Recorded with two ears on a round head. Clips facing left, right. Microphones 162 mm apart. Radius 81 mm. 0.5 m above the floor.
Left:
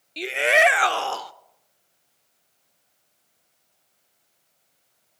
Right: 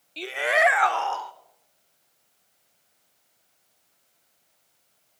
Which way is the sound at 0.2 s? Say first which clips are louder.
Left 3 dB; 20° left (ahead or behind).